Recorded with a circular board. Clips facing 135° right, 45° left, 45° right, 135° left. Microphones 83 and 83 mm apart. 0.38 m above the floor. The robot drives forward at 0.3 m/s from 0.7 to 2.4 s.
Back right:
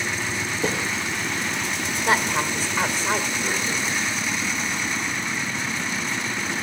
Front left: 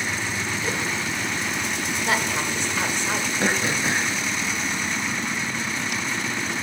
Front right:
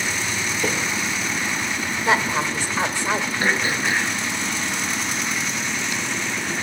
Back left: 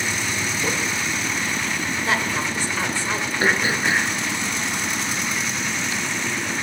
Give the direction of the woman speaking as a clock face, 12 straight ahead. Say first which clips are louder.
Back right 4 dB, front right 5 dB; 3 o'clock.